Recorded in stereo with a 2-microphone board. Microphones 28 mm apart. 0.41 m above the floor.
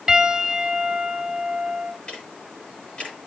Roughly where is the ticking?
Left.